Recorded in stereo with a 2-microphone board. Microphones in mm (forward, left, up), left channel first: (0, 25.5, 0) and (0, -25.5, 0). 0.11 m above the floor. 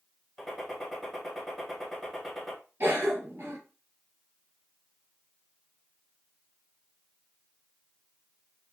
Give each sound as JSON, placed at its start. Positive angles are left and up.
{"t": 0.4, "sound": "a gunshot", "side_deg": 0, "distance_m": 1.1}
{"t": 2.8, "sound": "a cough", "side_deg": -55, "distance_m": 1.9}